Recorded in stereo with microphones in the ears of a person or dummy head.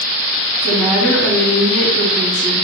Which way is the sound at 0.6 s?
Centre (ahead or behind).